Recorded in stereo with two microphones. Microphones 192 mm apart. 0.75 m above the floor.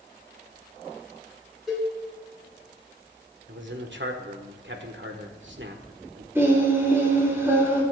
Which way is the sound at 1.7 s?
Centre (ahead or behind).